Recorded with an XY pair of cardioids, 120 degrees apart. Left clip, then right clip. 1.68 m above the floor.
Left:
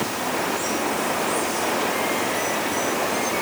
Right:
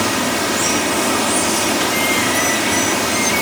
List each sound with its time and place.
0.0 s running water: 65° right